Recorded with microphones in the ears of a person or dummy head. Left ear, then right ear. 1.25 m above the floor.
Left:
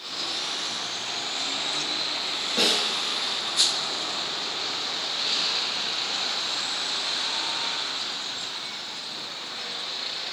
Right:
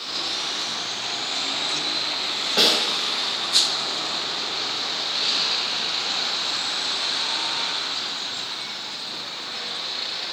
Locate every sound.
2.6 s a snare drum: 45° right (ahead or behind), 1.5 m